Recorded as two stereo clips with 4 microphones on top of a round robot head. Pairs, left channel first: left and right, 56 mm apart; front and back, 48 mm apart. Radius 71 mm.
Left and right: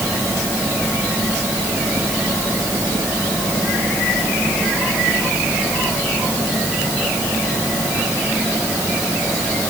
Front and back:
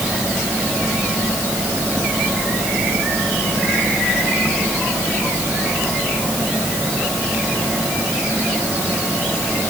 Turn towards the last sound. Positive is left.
No sound to turn to.